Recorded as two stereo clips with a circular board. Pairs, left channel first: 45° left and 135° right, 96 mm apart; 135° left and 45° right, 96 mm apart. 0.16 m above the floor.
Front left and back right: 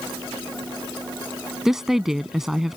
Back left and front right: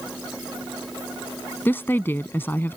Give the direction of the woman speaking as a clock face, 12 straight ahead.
7 o'clock.